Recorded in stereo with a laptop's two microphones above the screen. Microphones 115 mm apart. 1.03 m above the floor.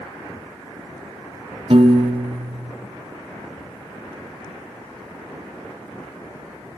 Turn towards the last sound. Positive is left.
turn(degrees=-55)  # may be behind; listen again after turning